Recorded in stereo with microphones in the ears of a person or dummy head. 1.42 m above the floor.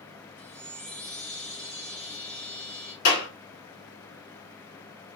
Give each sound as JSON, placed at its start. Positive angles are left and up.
{"t": 0.4, "sound": "a chime", "side_deg": 10, "distance_m": 1.1}
{"t": 3.0, "sound": "a clap", "side_deg": 55, "distance_m": 1.8}